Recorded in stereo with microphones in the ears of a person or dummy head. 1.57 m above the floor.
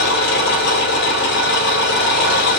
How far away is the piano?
I don't hear a piano.